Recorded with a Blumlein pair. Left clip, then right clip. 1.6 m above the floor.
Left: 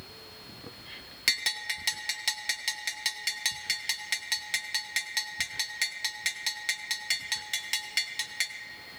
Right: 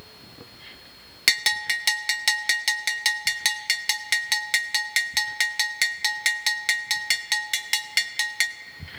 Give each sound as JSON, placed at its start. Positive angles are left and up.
{"t": 1.3, "sound": "a bell", "azimuth_deg": -20, "distance_m": 0.5}